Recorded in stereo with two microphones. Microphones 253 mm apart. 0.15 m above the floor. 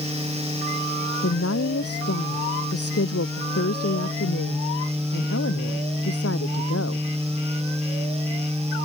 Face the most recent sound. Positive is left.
turn(degrees=65)  # may be behind; listen again after turning